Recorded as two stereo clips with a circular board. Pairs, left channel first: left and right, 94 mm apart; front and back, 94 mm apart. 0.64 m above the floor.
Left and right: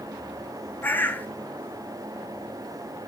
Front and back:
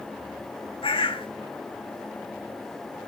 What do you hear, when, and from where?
0.8 s a bird: 20° left, 1.1 m